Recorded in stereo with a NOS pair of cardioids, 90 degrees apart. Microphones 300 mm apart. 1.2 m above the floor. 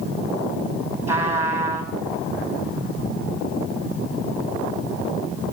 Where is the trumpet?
10° right, 7 m.